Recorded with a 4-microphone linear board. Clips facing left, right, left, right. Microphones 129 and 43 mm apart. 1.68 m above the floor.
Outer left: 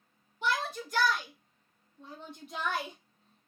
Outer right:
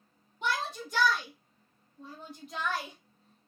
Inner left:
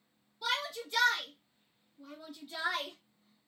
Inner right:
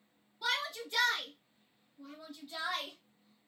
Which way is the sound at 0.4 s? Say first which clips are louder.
Outer left 1 dB, even; 15° right (ahead or behind).